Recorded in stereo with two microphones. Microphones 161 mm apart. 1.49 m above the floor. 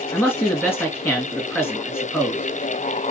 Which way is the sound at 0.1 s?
15° left (ahead or behind).